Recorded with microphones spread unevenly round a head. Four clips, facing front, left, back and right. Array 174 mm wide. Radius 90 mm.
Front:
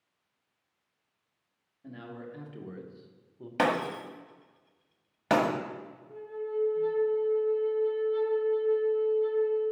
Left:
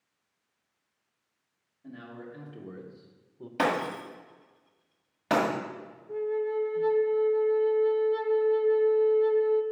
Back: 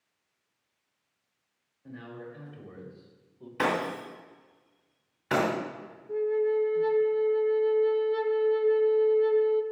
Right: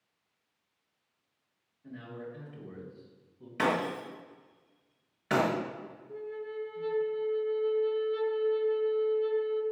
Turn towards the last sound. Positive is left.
turn(degrees=140)